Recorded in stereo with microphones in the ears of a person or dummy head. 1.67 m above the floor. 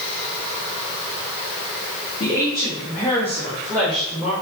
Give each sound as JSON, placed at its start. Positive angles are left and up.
{"t": 2.2, "sound": "a woman speaking", "side_deg": 35, "distance_m": 3.5}